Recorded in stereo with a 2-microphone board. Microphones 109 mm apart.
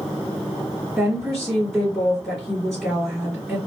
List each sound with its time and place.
1.0 s a woman speaking: centre (ahead or behind), 2 m